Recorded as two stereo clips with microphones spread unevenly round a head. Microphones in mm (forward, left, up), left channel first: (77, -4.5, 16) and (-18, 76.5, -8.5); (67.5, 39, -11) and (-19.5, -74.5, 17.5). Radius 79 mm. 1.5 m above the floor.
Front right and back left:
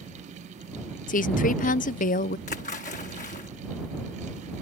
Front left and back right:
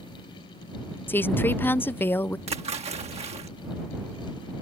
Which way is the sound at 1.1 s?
20° right.